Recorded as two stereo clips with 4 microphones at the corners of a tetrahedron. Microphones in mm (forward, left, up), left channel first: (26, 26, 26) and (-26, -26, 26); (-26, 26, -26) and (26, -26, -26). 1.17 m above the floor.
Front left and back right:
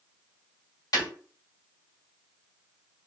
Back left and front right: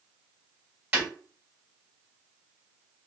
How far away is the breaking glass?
About 1.9 m.